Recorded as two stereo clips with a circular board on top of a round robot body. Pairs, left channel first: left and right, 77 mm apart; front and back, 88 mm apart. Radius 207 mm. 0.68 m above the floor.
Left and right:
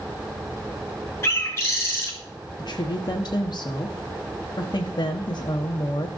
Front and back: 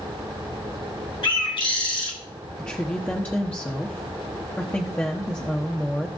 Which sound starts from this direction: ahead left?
A bird, at 1.2 s.